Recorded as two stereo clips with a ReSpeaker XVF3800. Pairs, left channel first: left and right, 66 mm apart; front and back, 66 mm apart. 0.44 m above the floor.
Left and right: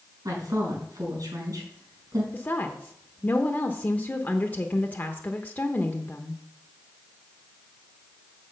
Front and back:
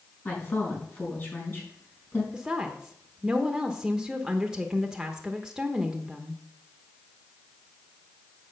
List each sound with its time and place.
0.2 s a woman speaking: 55° right, 4.5 m
2.3 s a woman speaking: 110° left, 0.8 m